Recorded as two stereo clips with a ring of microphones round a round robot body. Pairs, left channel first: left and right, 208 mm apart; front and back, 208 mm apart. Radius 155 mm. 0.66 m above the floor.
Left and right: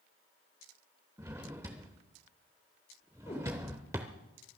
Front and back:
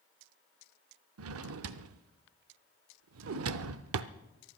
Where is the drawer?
170° right, 0.5 m.